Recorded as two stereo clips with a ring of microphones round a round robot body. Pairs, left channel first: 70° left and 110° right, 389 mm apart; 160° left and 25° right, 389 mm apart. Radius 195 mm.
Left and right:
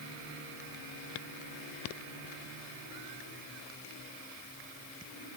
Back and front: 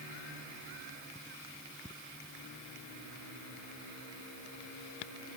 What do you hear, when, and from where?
Only background noise.